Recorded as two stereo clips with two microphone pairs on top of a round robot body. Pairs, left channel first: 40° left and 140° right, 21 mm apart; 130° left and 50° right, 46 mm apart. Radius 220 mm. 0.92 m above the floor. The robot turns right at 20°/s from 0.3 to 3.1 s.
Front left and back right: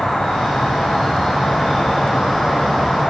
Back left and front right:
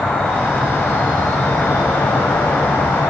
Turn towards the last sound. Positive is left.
turn(degrees=115)